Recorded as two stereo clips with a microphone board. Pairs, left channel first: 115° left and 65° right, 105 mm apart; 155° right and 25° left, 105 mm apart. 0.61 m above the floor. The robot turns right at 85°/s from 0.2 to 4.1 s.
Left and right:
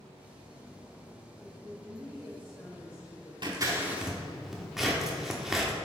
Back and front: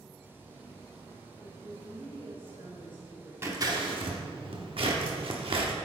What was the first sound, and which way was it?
A woman speaking, 75° right.